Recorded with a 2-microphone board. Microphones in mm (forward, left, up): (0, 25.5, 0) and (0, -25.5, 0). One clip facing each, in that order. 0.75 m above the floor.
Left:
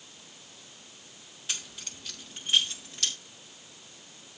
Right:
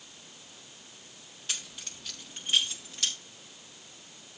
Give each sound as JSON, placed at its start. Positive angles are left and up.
{"t": 1.5, "sound": "keys jangling", "side_deg": 0, "distance_m": 4.0}